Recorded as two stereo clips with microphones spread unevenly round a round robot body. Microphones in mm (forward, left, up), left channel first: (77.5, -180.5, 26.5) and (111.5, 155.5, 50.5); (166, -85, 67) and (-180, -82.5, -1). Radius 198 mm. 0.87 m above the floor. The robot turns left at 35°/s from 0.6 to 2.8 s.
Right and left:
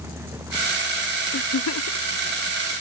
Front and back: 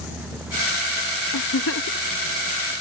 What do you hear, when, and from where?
1.3 s a giggle: 45° right; by 2.1 s 70° right